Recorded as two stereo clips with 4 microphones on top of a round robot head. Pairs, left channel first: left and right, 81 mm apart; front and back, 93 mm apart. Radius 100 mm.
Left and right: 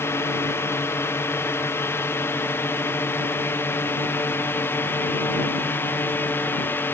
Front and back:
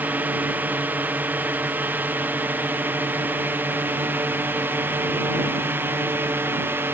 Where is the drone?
120° left; by 6.9 s 130° left.